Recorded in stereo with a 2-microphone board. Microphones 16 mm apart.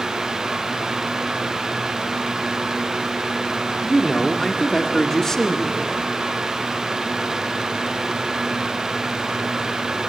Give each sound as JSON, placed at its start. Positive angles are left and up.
{"t": 3.8, "sound": "a man speaking", "side_deg": 30, "distance_m": 1.7}